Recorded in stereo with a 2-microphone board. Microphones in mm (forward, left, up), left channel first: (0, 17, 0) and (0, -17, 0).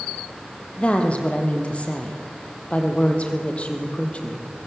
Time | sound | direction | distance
0.8 | a woman speaking | 35° left (ahead or behind) | 3.5 m